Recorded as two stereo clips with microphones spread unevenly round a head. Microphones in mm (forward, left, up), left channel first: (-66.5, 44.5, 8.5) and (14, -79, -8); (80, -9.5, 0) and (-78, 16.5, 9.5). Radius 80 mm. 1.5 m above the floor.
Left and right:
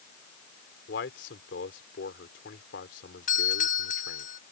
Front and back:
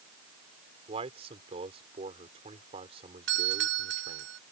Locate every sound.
0.9 s a man speaking: 115° left
3.3 s a doorbell: 155° left